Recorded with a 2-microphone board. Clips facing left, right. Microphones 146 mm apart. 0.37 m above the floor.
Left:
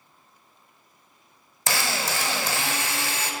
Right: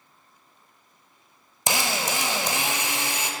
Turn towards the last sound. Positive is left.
turn(degrees=-20)  # may be behind; listen again after turning